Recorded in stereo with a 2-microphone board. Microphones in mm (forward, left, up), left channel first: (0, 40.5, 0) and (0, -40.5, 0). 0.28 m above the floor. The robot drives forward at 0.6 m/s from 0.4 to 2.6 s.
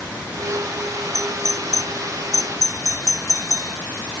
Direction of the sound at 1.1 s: 45° right (ahead or behind).